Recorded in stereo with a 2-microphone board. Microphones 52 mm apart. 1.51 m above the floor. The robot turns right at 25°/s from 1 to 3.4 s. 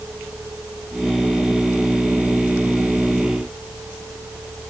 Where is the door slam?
I don't hear a door slam.